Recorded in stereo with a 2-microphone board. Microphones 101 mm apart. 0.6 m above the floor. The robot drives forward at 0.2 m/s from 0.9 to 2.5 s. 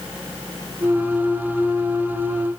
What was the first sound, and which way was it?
Only background noise.